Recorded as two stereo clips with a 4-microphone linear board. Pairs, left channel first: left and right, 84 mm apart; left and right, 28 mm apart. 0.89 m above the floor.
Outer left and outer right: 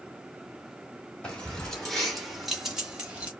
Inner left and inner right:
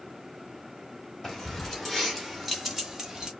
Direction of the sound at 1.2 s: 15° left (ahead or behind).